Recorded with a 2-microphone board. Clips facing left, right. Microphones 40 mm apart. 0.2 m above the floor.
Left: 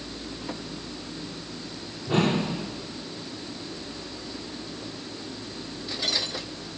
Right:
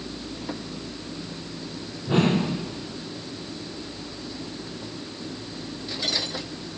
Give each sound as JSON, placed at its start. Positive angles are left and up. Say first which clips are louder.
{"t": 2.1, "sound": "a whoosh", "louder": "right 2 dB", "side_deg": -20, "distance_m": 6.0}